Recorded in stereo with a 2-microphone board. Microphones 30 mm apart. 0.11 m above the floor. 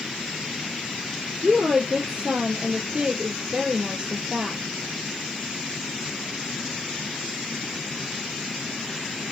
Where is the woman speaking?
20° right (ahead or behind), 2.5 m.